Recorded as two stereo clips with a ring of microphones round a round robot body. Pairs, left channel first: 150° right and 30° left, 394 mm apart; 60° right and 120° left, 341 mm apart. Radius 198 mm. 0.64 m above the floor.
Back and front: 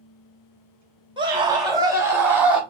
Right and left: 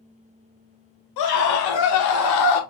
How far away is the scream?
About 2.5 m.